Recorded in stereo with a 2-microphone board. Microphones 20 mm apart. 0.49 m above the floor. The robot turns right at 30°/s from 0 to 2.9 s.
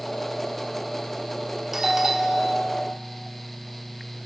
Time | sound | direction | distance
1.7 | a doorbell | 15° right (ahead or behind) | 1.3 m